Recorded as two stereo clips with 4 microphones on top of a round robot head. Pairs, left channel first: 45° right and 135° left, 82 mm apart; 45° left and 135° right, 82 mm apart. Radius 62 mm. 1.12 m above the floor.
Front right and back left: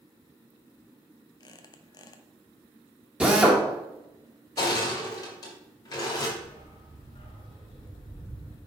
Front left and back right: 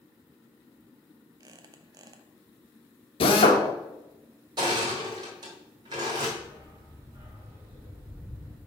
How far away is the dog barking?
About 1.9 m.